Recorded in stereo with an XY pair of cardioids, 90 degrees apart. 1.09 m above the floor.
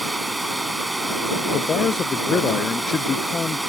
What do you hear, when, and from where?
0.0 s running water: 15° right
1.5 s a man speaking: 45° left